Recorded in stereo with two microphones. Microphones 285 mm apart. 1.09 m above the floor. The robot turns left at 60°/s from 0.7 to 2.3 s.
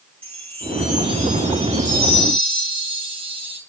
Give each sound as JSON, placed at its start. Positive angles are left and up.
{"t": 0.2, "sound": "a chime", "azimuth_deg": 5, "distance_m": 8.0}